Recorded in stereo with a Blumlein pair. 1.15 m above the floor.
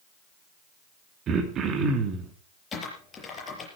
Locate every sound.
1.3 s throat clearing: 30° right, 2.5 m
2.7 s typing on a keyboard: 20° left, 5.5 m